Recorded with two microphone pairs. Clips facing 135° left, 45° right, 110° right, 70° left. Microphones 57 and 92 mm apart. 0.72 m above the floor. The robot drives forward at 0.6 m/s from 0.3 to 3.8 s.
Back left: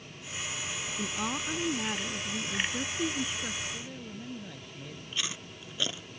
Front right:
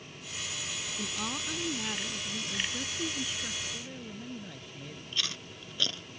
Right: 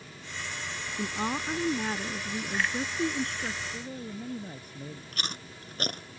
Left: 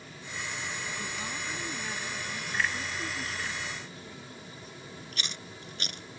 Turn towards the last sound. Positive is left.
turn(degrees=-150)